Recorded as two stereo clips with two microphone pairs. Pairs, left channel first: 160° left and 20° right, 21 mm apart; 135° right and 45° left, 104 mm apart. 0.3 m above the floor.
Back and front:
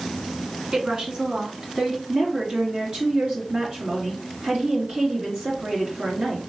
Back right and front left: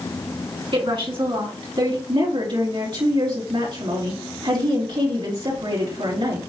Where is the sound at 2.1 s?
10° left, 4 m.